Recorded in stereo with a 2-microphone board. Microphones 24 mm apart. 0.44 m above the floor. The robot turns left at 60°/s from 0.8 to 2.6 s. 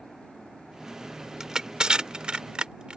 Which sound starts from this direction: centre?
Crushing, at 1.4 s.